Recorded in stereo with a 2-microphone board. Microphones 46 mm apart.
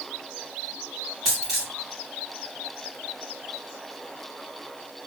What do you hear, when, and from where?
1.2 s a dropped coin: 10° right (ahead or behind), 2.5 m